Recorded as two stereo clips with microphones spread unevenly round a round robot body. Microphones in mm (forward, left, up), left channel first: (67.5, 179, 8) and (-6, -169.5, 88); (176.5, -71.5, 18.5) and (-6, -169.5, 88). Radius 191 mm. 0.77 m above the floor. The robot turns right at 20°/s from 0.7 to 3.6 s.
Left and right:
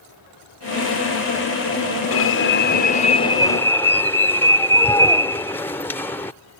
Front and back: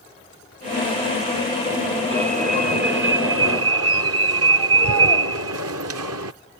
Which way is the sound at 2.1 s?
130° left.